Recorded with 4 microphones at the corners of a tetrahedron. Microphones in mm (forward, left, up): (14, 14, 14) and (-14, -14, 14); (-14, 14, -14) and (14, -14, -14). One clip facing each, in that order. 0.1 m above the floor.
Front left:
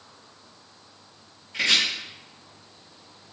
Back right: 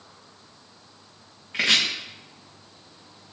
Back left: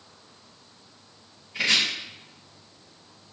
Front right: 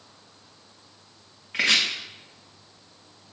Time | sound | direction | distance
1.5 | chopping | 75° right | 3 m